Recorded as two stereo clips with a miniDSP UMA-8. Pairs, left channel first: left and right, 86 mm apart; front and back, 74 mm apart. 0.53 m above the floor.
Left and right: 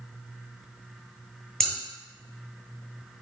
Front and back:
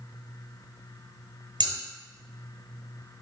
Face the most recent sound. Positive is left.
turn(degrees=175)